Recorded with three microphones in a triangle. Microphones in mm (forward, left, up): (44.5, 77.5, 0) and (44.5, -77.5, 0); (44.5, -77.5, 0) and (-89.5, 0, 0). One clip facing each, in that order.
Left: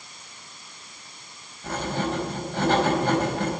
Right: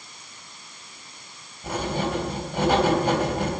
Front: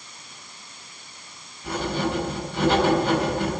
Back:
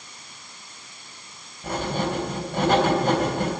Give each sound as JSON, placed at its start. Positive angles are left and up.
{"t": 1.6, "sound": "writing", "azimuth_deg": -165, "distance_m": 3.5}